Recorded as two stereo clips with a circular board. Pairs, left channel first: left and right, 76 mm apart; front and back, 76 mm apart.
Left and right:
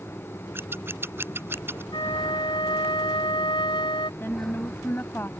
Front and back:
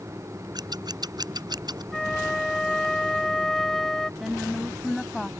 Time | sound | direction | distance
0.6 | scissors | 150° right | ?
1.9 | a flute | 90° left | ?
4.2 | a woman speaking | 95° left | ?